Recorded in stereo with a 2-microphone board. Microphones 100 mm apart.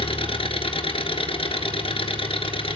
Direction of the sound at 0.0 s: 70° left (ahead or behind).